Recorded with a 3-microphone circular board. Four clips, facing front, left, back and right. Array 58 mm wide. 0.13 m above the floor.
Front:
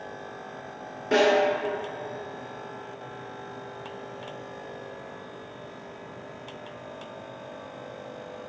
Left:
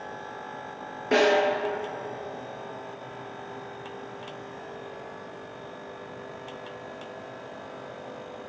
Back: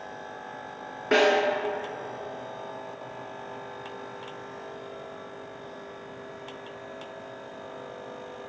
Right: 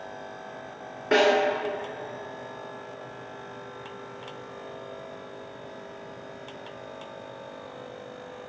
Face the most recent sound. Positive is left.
turn(degrees=-140)